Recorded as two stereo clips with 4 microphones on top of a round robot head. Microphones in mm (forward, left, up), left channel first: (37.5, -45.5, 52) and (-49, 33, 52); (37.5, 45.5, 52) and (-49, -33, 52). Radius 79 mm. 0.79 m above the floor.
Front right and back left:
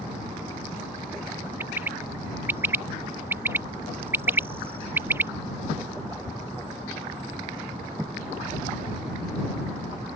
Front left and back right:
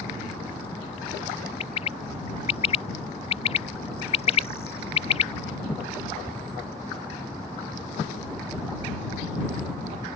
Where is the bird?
70° left.